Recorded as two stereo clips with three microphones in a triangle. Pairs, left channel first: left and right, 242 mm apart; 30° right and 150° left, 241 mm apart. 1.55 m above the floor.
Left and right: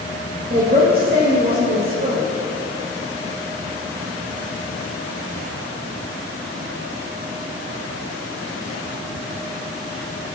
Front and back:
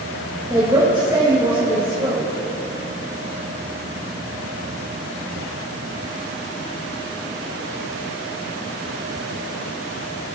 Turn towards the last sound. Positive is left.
turn(degrees=-140)